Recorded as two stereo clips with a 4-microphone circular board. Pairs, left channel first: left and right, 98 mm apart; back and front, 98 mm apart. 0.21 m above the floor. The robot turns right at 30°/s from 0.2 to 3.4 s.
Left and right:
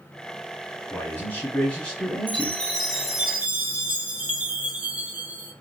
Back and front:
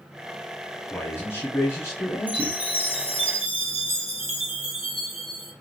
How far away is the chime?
About 1.4 m.